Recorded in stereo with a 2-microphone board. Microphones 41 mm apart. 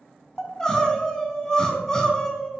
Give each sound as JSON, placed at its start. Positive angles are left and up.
{"t": 0.4, "sound": "crying", "side_deg": 20, "distance_m": 0.5}